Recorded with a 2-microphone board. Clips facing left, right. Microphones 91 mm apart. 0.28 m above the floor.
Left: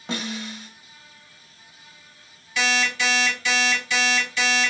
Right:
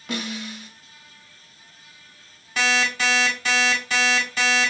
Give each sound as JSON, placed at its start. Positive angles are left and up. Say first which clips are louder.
{"t": 0.1, "sound": "a snare drum", "louder": "even", "side_deg": 30, "distance_m": 0.9}
{"t": 2.6, "sound": "an alarm clock", "louder": "right 1 dB", "side_deg": -40, "distance_m": 1.4}